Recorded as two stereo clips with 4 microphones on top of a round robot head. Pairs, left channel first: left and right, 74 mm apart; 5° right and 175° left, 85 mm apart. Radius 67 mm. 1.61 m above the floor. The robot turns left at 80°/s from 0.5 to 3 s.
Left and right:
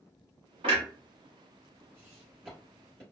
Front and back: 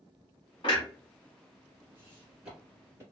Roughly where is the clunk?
Ahead right.